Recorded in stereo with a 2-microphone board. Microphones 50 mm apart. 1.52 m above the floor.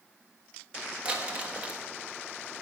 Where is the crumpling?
25° right (ahead or behind), 1.3 m.